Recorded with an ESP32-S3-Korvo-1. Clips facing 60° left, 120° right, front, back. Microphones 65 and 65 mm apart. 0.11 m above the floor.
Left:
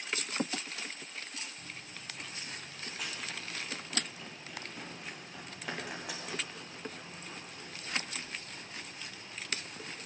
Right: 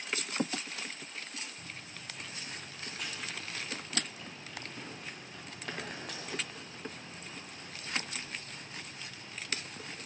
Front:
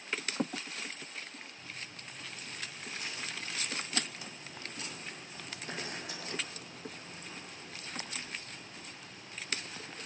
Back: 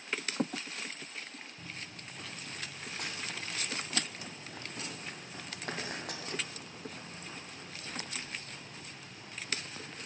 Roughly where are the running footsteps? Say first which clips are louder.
Even, back 1 dB; behind left.